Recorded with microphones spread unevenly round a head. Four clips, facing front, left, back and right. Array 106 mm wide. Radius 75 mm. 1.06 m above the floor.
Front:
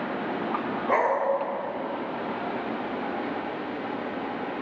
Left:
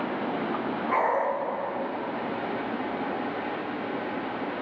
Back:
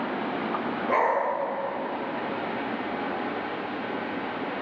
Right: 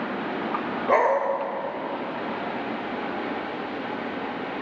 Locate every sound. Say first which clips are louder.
0.9 s a dog barking: right 5 dB, even; 80° right, 1.7 m